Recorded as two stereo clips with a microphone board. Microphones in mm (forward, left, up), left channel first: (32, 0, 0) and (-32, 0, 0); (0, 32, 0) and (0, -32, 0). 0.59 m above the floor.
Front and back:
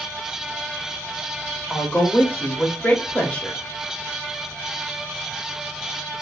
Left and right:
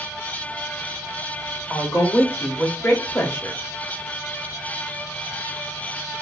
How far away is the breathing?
No breathing in this recording.